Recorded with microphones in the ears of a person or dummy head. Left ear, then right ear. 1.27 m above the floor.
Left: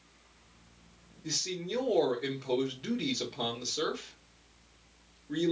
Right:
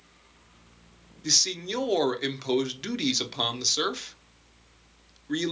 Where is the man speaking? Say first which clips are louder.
Right 10 dB; 55° right (ahead or behind), 0.8 m.